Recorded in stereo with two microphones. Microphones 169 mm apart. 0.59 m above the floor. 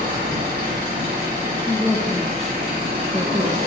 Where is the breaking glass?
No breaking glass in this recording.